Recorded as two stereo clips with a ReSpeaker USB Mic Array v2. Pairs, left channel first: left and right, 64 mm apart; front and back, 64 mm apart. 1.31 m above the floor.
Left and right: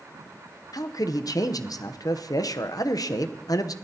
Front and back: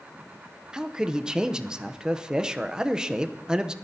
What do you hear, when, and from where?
0.7 s a man speaking: 105° left, 0.7 m